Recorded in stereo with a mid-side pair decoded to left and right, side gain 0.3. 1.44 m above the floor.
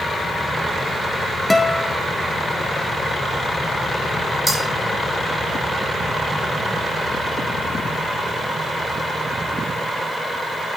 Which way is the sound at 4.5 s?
20° right.